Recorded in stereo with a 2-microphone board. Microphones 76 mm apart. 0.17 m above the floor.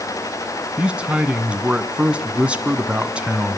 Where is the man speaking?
15° right (ahead or behind), 1.2 m.